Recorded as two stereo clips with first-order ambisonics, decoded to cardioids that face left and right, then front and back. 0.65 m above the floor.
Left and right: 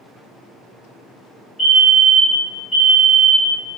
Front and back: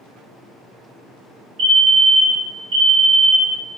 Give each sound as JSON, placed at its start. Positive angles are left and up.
{"t": 1.6, "sound": "a fire alarm", "azimuth_deg": 170, "distance_m": 2.5}